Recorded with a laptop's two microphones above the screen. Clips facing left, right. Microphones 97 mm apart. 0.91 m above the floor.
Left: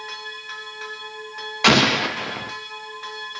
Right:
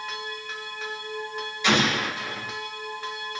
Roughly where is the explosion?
Left.